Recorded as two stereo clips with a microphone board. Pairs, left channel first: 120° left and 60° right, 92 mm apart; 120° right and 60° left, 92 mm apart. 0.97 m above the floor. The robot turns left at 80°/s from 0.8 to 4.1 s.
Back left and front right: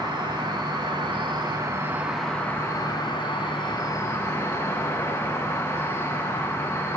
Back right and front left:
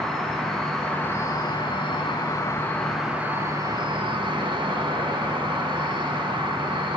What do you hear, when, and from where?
0.0 s an insect: 35° right, 1.3 m; by 7.0 s 60° left, 1.3 m